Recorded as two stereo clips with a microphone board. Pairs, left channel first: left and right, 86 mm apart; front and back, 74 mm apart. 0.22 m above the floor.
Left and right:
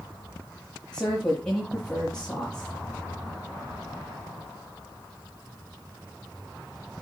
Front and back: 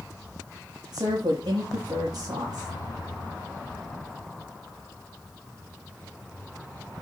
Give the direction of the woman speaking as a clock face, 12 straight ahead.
6 o'clock.